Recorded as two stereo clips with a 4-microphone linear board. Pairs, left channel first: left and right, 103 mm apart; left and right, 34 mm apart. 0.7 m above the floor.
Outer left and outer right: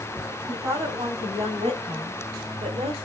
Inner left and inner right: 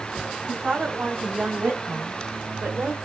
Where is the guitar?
No guitar in this recording.